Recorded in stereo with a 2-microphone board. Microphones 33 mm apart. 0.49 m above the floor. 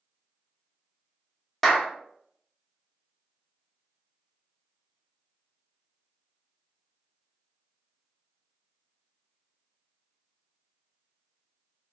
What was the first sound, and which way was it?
A clap, centre (ahead or behind).